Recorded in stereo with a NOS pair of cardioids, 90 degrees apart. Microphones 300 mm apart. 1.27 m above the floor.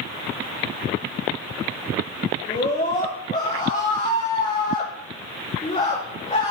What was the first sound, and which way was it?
A scream, 25° left.